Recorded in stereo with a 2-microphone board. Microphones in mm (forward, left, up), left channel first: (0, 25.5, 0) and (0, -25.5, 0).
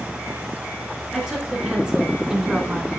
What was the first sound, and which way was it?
A woman speaking, 15° right (ahead or behind).